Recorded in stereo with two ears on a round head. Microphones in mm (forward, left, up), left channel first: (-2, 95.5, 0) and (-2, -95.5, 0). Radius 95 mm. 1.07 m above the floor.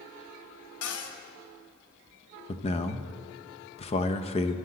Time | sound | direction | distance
0.8 | a cupboard door | 80° left | 1.2 m
2.5 | a man speaking | 30° left (ahead or behind) | 0.7 m